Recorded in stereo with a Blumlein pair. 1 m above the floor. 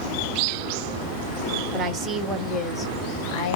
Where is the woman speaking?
30° right, 1.1 m; by 3.6 s 45° left, 1.1 m.